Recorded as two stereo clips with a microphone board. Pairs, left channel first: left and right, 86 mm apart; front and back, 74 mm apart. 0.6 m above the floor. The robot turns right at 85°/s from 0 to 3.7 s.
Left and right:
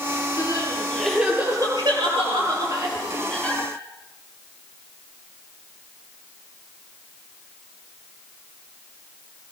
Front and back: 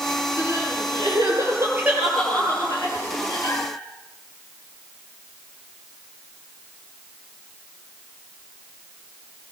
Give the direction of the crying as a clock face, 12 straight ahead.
8 o'clock.